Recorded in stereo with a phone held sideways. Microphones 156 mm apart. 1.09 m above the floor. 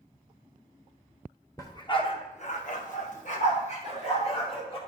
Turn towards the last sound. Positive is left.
turn(degrees=35)  # may be behind; listen again after turning